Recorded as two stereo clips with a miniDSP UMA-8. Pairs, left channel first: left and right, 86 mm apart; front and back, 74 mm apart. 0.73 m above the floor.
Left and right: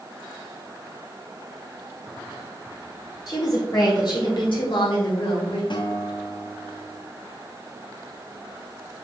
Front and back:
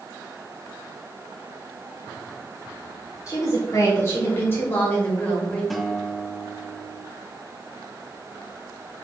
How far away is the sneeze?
I don't hear a sneeze.